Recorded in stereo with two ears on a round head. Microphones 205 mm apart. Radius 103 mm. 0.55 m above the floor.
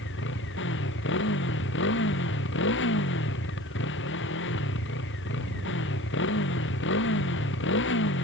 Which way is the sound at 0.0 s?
55° left (ahead or behind).